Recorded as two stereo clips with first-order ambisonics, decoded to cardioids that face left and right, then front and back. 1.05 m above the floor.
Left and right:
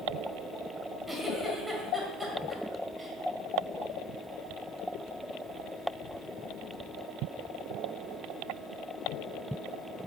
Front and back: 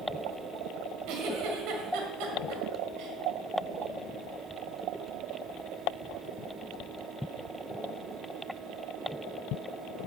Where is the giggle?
175° right, 1.8 m.